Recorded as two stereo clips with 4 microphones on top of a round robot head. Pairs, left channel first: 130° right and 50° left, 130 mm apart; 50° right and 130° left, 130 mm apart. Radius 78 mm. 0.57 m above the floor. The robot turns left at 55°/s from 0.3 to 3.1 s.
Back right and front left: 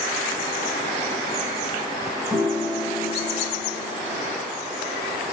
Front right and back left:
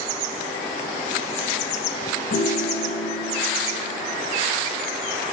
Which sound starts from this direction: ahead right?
A piano, at 2.3 s.